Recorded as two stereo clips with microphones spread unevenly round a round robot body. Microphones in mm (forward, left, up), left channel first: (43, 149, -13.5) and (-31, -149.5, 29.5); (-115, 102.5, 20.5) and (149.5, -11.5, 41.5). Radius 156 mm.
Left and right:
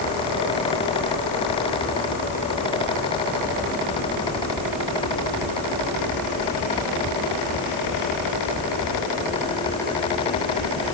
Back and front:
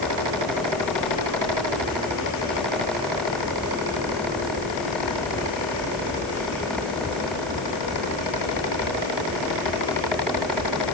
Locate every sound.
Only background noise.